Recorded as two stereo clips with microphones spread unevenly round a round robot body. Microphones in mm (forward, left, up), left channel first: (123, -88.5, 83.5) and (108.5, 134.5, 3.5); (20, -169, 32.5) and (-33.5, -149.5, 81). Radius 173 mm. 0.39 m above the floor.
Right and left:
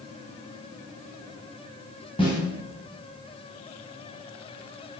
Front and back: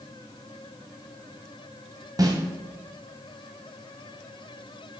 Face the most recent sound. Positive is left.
turn(degrees=-165)